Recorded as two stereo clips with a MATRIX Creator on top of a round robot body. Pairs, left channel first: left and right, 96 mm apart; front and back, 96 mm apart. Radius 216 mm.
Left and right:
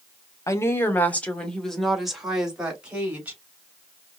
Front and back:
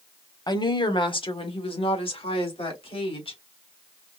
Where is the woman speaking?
35° left, 1.5 m; by 3.4 s 15° right, 3 m.